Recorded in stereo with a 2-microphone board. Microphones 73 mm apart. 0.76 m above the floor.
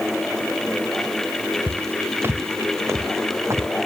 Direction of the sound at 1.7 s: 25° right (ahead or behind).